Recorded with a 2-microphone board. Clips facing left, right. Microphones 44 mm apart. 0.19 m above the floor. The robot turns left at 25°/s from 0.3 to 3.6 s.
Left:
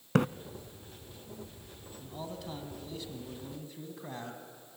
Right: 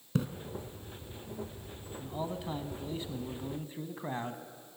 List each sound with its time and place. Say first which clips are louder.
0.1 s a splash: left 6 dB; 60° left (ahead or behind), 0.5 m
2.0 s a man speaking: right 5 dB; 20° right (ahead or behind), 1.4 m; by 4.4 s 25° right (ahead or behind), 1.4 m